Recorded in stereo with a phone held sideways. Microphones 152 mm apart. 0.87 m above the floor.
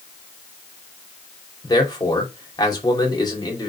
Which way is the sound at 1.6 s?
25° left (ahead or behind).